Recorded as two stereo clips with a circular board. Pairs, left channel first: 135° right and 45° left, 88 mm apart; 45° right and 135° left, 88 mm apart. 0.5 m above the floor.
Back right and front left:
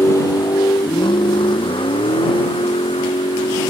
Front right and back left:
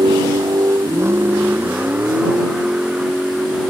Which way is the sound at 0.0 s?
165° left.